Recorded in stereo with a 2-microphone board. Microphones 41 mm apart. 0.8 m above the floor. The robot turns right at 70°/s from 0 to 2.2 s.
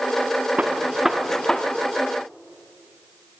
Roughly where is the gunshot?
Right.